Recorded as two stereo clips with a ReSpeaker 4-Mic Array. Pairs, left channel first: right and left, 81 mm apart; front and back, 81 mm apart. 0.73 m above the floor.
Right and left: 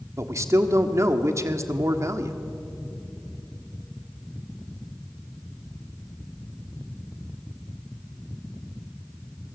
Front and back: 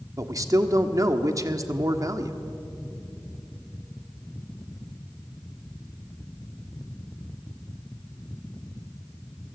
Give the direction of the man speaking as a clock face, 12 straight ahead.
7 o'clock.